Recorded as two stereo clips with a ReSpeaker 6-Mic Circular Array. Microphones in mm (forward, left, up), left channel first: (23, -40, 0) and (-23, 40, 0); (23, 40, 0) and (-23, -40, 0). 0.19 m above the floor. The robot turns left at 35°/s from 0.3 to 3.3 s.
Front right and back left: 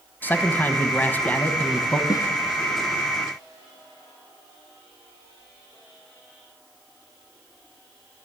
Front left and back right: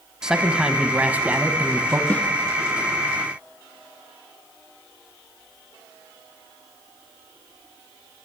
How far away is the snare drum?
About 0.8 m.